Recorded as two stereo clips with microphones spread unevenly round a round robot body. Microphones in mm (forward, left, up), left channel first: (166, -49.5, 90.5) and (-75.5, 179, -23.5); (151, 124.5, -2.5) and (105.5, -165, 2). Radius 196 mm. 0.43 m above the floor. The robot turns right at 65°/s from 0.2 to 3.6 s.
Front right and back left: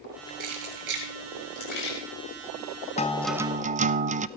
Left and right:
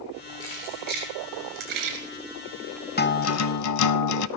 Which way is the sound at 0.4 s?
160° left.